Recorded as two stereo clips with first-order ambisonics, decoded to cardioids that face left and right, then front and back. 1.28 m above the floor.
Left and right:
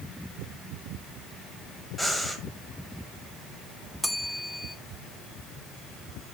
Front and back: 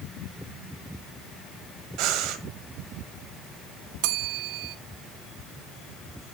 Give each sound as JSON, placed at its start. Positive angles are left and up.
{"t": 2.0, "sound": "breathing", "azimuth_deg": 175, "distance_m": 1.7}
{"t": 4.0, "sound": "a bell", "azimuth_deg": 175, "distance_m": 0.8}